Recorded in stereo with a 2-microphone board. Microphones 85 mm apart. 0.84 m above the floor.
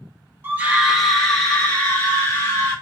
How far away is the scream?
About 1.2 m.